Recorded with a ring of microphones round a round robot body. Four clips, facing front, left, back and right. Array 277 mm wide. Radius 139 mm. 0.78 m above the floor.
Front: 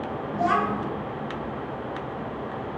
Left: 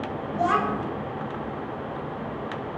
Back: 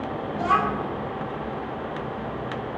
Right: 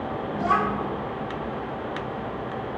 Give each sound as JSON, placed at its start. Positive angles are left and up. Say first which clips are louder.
{"t": 0.3, "sound": "a child speaking", "louder": "even, back 1 dB", "azimuth_deg": 80, "distance_m": 1.0}